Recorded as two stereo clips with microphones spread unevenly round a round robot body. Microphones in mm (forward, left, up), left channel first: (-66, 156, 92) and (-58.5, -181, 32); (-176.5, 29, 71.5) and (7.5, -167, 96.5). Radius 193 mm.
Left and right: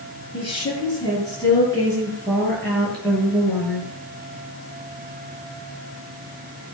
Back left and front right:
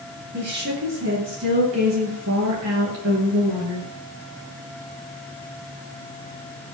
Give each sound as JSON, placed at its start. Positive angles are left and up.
{"t": 0.3, "sound": "a woman speaking", "azimuth_deg": 15, "distance_m": 7.0}